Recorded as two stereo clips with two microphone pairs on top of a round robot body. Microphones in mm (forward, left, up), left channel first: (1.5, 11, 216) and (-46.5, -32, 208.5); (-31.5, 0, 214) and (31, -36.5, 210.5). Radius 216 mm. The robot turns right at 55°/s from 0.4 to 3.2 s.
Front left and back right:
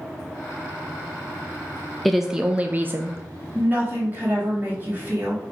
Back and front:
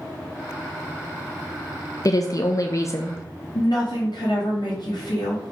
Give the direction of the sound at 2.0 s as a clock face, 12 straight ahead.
7 o'clock.